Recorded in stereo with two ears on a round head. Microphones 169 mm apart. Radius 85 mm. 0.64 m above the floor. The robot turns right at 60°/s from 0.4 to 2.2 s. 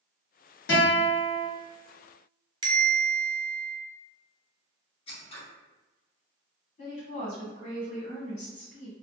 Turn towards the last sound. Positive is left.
turn(degrees=40)  # may be behind; listen again after turning